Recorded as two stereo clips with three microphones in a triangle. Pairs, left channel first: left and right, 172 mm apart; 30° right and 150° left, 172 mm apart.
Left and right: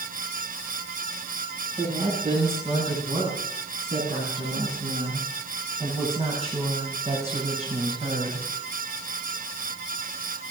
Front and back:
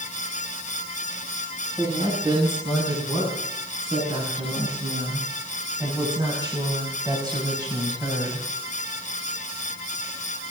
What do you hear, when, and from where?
1.8 s a woman speaking: 145° right, 10 m; by 8.5 s 140° right, 5.5 m